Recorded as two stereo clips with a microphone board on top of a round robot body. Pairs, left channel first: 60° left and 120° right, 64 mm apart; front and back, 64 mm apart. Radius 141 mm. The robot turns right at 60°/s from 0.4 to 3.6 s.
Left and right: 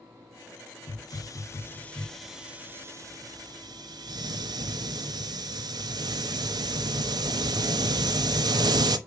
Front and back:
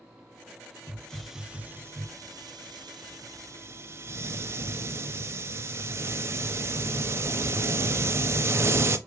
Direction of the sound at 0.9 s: 70° left.